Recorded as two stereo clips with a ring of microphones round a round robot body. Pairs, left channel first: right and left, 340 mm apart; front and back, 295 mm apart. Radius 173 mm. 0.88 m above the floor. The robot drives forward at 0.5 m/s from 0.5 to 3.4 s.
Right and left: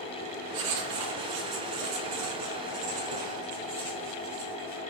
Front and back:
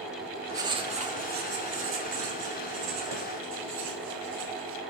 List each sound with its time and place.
0.5 s writing: 100° left, 1.1 m; by 4.8 s 145° left, 2.0 m